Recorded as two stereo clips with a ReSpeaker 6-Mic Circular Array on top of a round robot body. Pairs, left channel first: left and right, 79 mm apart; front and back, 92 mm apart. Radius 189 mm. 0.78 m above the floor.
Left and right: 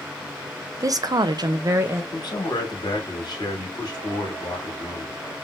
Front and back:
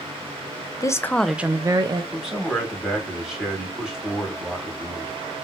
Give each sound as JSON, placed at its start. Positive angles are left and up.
{"t": 0.8, "sound": "a woman speaking", "azimuth_deg": -45, "distance_m": 0.6}
{"t": 2.1, "sound": "a man speaking", "azimuth_deg": 100, "distance_m": 2.0}